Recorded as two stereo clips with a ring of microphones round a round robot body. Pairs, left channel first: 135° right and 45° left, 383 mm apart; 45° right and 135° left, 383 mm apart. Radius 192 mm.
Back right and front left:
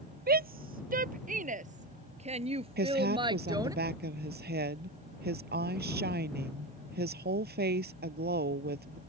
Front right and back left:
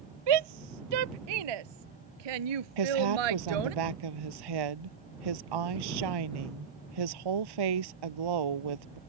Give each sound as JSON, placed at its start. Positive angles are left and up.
{"t": 0.3, "sound": "a shout", "azimuth_deg": 110}
{"t": 2.8, "sound": "a woman speaking", "azimuth_deg": 110}